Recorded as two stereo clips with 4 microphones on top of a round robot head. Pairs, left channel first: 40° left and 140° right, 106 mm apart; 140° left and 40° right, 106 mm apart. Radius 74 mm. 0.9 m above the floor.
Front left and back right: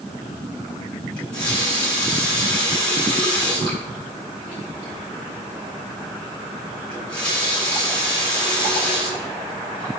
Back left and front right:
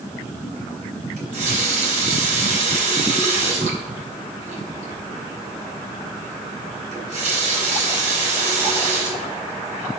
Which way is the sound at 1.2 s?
40° right.